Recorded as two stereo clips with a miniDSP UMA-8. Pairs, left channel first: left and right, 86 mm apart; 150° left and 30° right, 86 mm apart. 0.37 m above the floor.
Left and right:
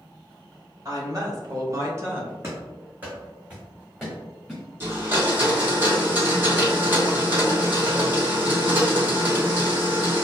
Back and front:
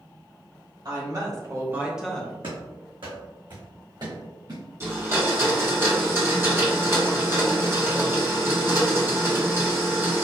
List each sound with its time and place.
0.8 s a woman speaking: 50° right, 1.8 m; by 2.3 s 150° right, 1.0 m
2.4 s running footsteps: 30° right, 1.8 m; by 4.6 s 5° left, 2.5 m
4.8 s a blender: 50° right, 1.6 m